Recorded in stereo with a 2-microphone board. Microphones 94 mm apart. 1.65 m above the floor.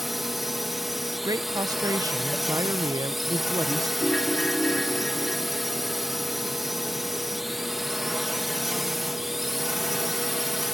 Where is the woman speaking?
40° right (ahead or behind).